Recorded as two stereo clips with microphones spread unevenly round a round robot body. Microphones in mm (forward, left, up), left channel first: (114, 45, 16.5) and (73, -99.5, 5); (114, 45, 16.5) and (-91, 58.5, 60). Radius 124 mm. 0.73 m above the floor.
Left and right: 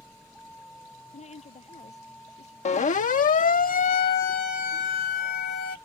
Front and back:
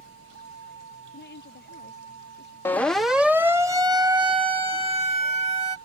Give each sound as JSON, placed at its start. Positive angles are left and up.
{"t": 0.0, "sound": "a vehicle", "azimuth_deg": 160}
{"t": 1.1, "sound": "a woman speaking", "azimuth_deg": 35}
{"t": 2.6, "sound": "a siren", "azimuth_deg": 60}